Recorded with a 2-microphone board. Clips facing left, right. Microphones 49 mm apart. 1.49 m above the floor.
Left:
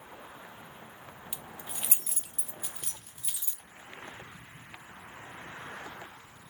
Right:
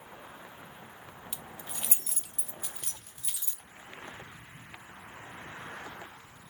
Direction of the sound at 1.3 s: 15° left (ahead or behind).